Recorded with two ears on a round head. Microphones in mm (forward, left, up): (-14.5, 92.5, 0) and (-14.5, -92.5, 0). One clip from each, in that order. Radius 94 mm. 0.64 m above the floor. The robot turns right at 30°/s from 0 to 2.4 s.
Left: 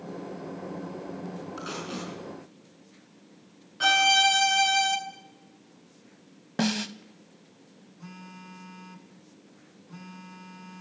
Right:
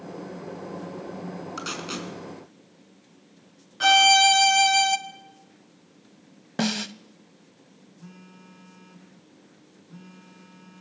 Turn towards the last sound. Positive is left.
turn(degrees=40)  # may be behind; listen again after turning